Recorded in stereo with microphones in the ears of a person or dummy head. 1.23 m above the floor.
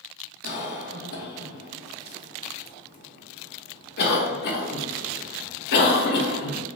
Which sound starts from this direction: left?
A cough, at 0.4 s.